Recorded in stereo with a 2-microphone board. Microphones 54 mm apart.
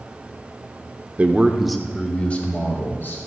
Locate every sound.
1.2 s a man speaking: 30° right (ahead or behind), 0.9 m; by 3.2 s 40° left (ahead or behind), 2.0 m